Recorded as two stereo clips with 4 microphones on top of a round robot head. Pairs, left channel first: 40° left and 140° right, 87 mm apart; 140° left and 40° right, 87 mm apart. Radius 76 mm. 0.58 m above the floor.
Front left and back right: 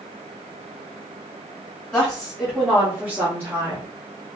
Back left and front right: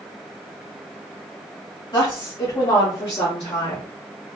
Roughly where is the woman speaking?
Behind left.